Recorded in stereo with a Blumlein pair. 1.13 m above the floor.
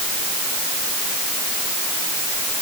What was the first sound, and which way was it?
Only background noise.